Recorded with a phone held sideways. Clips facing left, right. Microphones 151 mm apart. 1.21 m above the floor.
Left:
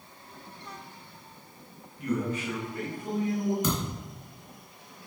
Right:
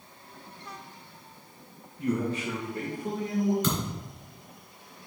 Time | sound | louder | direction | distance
2.0 | a man speaking | right 1 dB | 25° right (ahead or behind) | 1.3 m
3.6 | a thud | even | 15° left (ahead or behind) | 3 m